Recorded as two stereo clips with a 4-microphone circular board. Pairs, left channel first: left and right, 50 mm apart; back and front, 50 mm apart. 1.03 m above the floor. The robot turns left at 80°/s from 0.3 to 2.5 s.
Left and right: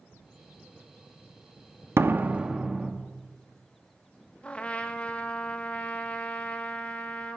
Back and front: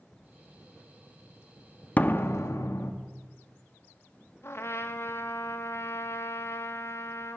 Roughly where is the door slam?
Behind right.